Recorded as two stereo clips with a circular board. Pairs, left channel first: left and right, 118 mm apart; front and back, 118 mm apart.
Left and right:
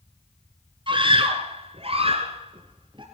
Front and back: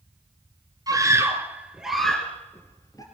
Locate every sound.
0.9 s a scream: 125° right, 3.5 m; by 3.0 s 50° right, 3 m